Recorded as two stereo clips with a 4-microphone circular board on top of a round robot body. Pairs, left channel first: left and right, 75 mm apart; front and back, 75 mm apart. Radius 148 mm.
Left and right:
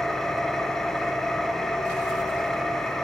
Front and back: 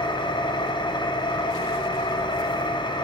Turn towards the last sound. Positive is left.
turn(degrees=5)